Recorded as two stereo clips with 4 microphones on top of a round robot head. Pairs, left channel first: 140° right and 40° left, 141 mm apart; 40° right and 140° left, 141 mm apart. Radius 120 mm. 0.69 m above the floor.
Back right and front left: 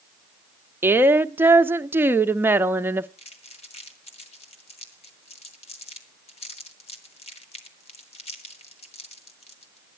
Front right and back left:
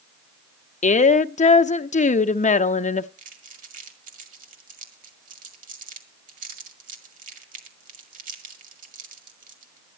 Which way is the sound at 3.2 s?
170° left.